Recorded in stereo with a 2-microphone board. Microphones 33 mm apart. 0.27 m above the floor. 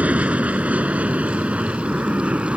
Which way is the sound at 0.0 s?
50° right (ahead or behind).